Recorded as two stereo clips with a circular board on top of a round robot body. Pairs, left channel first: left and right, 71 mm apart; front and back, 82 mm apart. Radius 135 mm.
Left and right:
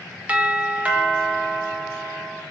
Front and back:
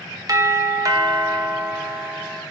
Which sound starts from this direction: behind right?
A doorbell, at 0.3 s.